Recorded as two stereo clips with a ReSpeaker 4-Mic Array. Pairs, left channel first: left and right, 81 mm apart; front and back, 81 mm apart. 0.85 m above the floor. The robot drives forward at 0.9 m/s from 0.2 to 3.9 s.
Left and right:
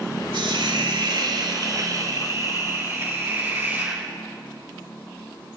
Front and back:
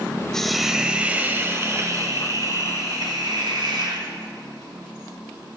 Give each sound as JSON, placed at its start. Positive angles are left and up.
{"t": 0.3, "sound": "a hiss", "azimuth_deg": -85, "distance_m": 1.4}